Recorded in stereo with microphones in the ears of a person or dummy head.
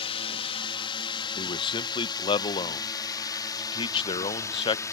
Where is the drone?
30° left (ahead or behind); by 4.9 s 15° left (ahead or behind).